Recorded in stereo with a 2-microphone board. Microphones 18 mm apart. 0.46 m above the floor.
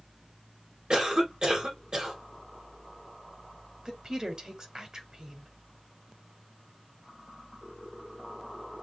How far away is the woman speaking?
About 1.6 m.